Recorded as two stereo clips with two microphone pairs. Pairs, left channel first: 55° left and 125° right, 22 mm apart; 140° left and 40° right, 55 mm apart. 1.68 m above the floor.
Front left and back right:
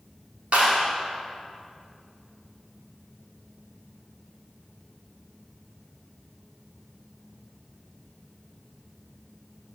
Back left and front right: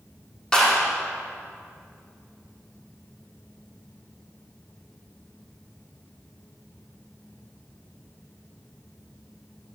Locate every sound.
0.5 s a clap: 145° right, 4 m